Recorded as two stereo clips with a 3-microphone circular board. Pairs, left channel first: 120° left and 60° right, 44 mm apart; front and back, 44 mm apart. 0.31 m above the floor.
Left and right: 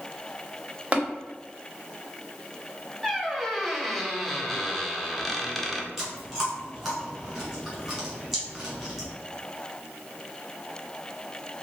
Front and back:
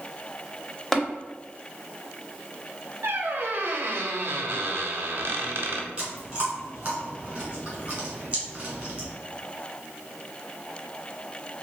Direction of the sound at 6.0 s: 135° right.